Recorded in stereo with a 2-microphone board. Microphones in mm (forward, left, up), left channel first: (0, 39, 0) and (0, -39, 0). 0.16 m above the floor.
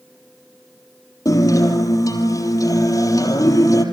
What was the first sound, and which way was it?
A guitar, 50° left (ahead or behind).